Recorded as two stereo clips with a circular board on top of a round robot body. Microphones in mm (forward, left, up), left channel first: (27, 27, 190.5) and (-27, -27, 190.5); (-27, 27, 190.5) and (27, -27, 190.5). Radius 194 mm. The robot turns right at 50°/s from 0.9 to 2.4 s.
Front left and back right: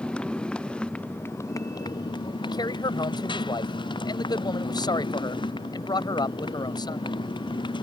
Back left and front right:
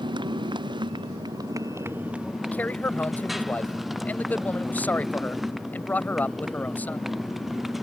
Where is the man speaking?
65° left.